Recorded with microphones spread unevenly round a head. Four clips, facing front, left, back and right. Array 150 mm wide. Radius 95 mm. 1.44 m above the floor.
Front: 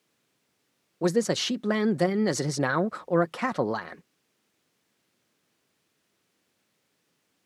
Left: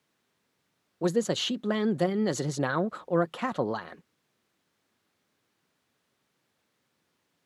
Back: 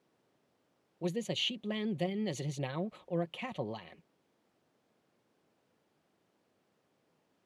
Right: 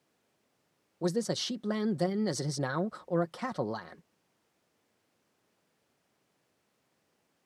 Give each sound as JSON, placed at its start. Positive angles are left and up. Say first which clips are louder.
{"t": 1.0, "sound": "a man speaking", "louder": "left 5 dB, front 11 dB", "azimuth_deg": 25}